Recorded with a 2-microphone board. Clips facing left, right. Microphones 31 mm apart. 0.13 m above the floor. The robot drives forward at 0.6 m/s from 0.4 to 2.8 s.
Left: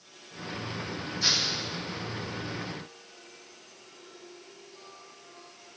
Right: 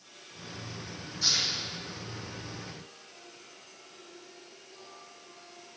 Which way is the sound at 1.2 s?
10° left (ahead or behind).